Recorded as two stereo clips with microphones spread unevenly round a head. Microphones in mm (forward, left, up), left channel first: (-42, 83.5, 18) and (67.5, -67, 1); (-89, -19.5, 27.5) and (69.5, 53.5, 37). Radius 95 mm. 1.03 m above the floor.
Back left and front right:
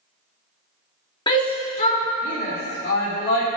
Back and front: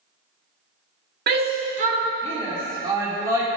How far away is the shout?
About 2 m.